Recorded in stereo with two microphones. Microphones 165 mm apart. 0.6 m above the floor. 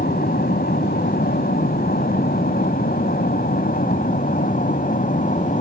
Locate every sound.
0.0 s an aircraft: 70° left (ahead or behind); by 5.6 s 50° left (ahead or behind)